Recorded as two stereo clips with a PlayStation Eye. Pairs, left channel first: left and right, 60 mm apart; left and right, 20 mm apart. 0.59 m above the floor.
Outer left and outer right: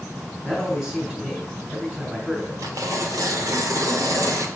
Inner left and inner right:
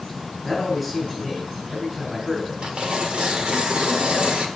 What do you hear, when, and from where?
0.4 s a man speaking: 10° right (ahead or behind), 4 m
2.6 s tearing paper: 65° right (ahead or behind), 1.3 m